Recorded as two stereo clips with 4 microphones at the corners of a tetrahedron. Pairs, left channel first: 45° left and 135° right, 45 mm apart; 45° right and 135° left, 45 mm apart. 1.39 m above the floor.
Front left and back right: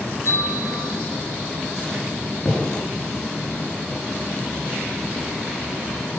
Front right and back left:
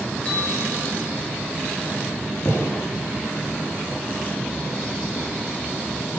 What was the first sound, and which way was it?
A bell, 25° left.